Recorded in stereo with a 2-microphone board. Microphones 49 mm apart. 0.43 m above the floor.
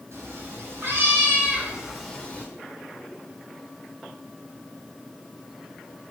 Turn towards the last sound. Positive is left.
turn(degrees=30)  # may be behind; listen again after turning